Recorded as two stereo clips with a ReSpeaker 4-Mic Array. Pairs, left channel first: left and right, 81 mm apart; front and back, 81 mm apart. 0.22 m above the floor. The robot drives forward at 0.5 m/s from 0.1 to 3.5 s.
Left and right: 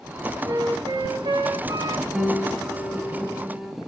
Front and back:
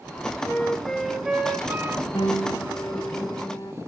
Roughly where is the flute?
Right.